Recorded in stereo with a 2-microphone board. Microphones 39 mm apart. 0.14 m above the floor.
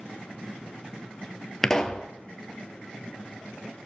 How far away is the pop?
About 0.6 m.